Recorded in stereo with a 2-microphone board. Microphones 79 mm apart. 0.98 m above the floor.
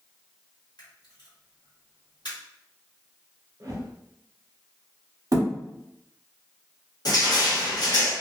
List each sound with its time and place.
0.8 s a camera shutter: 65° left (ahead or behind), 1.1 m
3.6 s a whoosh: 40° right (ahead or behind), 0.9 m
5.3 s a thud: 45° right (ahead or behind), 0.8 m
7.0 s crushing: 50° left (ahead or behind), 1.0 m